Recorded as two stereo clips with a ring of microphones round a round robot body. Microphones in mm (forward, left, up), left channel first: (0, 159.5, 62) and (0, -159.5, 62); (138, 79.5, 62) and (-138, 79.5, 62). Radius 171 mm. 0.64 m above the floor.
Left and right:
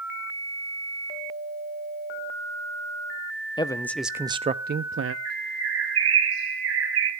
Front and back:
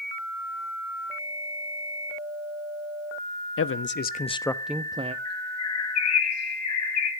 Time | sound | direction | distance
3.6 | a man speaking | 15° left | 1.0 m
5.2 | a bird | 40° right | 3.5 m